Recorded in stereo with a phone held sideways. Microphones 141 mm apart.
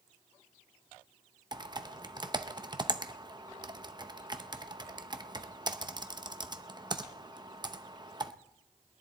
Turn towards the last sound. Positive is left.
turn(degrees=-30)  # may be behind; listen again after turning